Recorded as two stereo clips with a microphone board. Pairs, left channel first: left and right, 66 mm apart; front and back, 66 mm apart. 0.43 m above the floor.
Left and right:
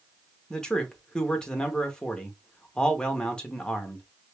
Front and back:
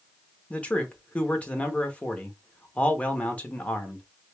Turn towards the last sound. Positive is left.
turn(degrees=30)